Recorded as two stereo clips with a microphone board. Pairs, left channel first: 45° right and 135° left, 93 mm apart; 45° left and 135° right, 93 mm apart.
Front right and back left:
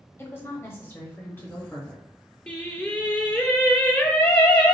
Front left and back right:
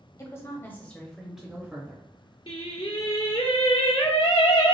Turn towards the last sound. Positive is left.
turn(degrees=30)